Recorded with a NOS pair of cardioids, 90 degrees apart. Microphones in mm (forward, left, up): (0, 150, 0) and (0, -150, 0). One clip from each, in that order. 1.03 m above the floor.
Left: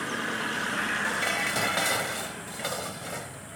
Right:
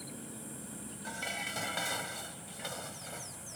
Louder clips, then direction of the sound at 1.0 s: Left 11 dB; 60° left.